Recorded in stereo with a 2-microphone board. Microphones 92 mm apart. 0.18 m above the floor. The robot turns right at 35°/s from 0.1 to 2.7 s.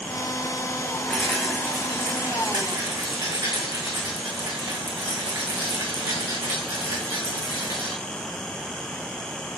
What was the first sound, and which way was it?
A rattle, 170° left.